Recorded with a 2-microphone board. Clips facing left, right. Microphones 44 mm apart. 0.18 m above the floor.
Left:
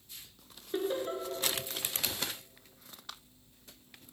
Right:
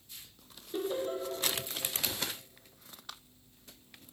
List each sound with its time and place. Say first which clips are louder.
0.7 s laughter: left 1 dB; 40° left (ahead or behind), 2.5 m